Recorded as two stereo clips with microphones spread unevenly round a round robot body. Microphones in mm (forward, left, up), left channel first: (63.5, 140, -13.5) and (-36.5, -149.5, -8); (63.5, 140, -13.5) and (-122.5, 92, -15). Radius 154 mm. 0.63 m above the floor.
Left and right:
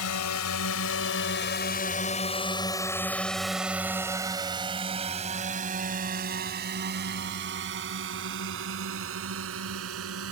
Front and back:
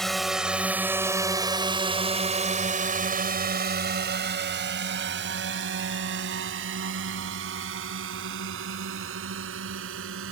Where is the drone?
100° left; by 10.3 s 155° right.